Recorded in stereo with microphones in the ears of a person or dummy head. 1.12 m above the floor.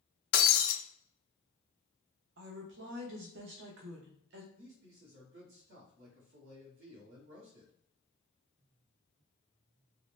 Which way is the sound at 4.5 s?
80° right.